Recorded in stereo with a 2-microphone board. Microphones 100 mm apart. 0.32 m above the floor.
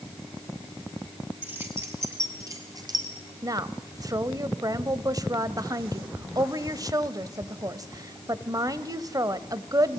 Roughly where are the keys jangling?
Right.